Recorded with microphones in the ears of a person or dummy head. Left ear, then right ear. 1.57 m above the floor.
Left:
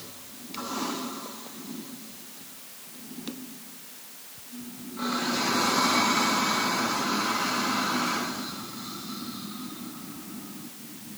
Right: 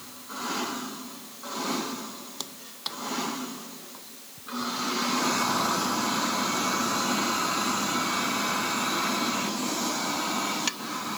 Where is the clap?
I don't hear a clap.